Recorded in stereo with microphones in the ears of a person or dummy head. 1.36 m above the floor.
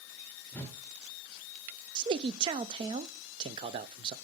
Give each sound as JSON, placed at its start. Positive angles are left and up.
{"t": 0.5, "sound": "a whoosh", "side_deg": 10, "distance_m": 1.4}
{"t": 1.9, "sound": "a man speaking", "side_deg": -30, "distance_m": 0.5}